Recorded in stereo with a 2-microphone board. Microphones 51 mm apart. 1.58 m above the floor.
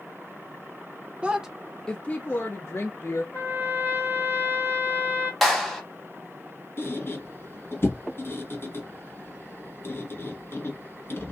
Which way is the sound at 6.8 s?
50° left (ahead or behind).